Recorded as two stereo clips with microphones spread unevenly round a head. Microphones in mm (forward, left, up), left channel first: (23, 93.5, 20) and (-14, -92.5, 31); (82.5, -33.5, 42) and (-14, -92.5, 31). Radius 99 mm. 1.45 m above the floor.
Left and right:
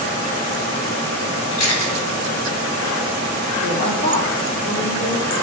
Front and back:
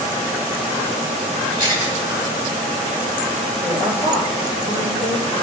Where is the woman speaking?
30° left, 5 m.